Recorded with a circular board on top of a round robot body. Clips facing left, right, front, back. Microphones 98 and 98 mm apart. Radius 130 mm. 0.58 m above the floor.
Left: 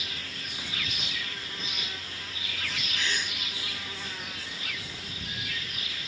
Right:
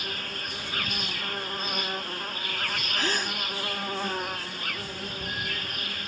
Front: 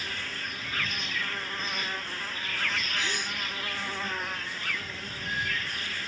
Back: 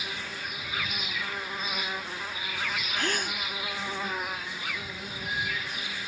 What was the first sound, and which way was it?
An insect, 105° right.